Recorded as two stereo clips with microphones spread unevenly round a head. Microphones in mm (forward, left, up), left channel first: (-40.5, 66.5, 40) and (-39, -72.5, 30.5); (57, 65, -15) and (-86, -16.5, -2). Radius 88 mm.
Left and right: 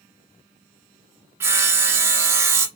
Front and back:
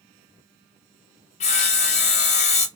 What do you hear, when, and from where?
1.4 s sawing: 20° right, 0.5 m